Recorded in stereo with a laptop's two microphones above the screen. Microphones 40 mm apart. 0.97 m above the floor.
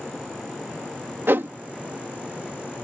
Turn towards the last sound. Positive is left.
turn(degrees=-65)  # may be behind; listen again after turning